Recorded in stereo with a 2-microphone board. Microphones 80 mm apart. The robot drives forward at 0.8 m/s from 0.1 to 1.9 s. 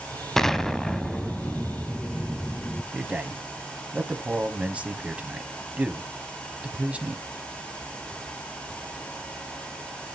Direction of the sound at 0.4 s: 5° left (ahead or behind).